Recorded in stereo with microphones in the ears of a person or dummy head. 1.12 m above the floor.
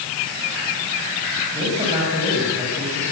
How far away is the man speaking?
About 7 m.